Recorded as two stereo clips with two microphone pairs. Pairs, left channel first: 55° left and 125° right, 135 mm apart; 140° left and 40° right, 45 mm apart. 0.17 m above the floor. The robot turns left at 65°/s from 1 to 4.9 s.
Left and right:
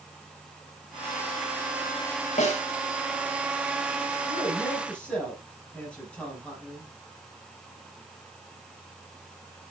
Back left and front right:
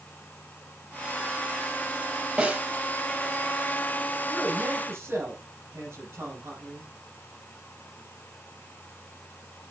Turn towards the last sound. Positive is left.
turn(degrees=-25)